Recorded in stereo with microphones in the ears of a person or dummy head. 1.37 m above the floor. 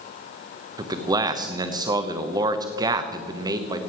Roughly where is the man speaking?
Right.